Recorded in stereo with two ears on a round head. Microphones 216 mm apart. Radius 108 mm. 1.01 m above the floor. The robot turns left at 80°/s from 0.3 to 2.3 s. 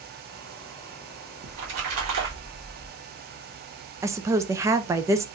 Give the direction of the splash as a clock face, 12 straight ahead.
2 o'clock.